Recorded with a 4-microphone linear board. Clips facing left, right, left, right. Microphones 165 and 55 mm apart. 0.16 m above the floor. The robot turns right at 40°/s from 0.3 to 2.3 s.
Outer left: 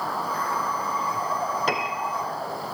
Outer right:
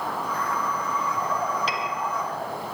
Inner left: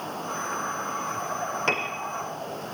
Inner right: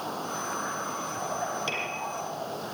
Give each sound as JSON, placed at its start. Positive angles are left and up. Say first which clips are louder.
{"t": 1.7, "sound": "a piano", "louder": "outer left 2 dB, inner left 5 dB", "side_deg": 50, "distance_m": 3.5}